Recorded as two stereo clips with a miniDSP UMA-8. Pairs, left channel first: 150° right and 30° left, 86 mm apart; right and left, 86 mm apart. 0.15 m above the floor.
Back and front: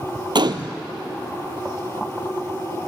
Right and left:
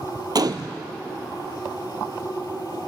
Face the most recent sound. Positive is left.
turn(degrees=55)